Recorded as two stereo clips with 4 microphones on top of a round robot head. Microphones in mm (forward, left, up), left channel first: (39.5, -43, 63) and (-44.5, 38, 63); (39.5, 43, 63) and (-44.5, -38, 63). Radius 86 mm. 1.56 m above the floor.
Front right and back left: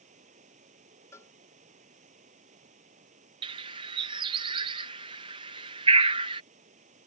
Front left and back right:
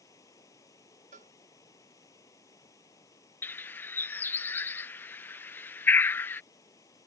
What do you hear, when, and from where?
0.0 s running water: 110° left
1.1 s a cowbell: 110° right
3.4 s a bird: 110° left